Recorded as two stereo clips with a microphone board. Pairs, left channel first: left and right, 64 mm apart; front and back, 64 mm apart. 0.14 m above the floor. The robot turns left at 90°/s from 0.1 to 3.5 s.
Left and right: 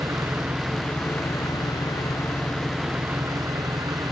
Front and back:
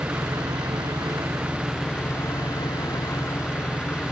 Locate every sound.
0.0 s an engine running: 120° right; by 4.1 s 65° right